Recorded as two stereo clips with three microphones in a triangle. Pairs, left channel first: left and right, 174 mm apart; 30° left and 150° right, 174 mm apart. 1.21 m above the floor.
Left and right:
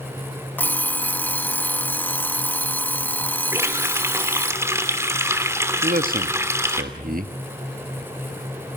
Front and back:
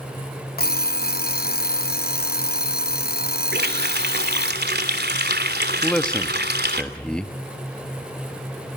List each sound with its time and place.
0.6 s an alarm clock: 15° left, 0.8 m
3.5 s a running tap: 165° right, 3 m
5.8 s a man speaking: 55° right, 1.7 m